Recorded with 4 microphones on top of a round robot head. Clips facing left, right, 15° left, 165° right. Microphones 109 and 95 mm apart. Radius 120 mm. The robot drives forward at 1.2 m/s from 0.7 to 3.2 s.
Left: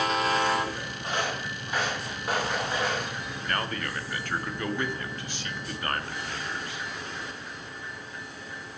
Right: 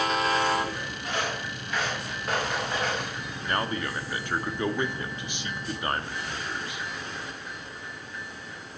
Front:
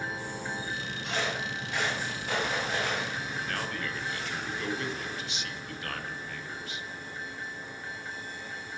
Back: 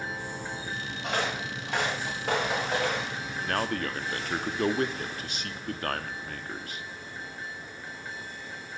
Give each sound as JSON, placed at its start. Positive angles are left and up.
{"t": 1.0, "sound": "footsteps", "azimuth_deg": 160, "distance_m": 7.0}
{"t": 3.4, "sound": "a man speaking", "azimuth_deg": -155, "distance_m": 1.4}